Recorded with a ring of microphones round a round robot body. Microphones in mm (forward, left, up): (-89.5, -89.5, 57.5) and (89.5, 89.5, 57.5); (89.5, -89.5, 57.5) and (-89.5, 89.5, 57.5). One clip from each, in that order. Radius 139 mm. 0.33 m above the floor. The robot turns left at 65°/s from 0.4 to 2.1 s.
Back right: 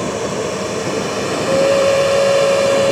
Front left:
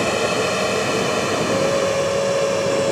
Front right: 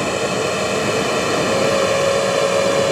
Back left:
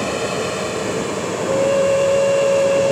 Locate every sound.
0.0 s an aircraft: 35° left; by 2.9 s 80° right
1.5 s a flute: 150° right; by 2.9 s 170° left